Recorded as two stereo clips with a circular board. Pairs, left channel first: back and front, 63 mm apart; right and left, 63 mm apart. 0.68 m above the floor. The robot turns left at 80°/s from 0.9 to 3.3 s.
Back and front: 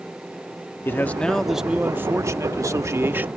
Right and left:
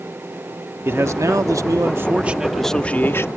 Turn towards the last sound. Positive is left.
turn(degrees=-60)